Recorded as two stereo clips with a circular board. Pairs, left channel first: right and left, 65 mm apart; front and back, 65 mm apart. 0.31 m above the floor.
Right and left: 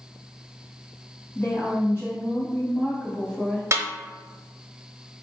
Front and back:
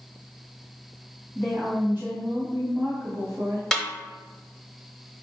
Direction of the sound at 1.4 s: 120° right.